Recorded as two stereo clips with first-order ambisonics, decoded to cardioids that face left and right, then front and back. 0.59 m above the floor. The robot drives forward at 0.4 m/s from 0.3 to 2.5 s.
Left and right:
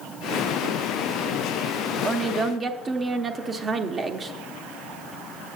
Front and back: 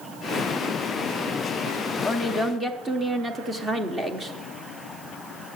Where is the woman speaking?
80° right, 0.7 m; by 4.3 s 125° right, 0.7 m.